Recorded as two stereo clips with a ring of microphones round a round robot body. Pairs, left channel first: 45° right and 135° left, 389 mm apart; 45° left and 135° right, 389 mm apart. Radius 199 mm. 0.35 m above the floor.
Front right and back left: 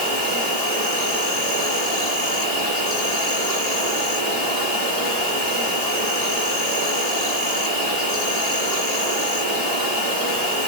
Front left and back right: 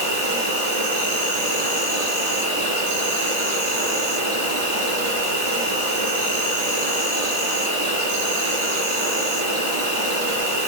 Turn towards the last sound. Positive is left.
turn(degrees=-110)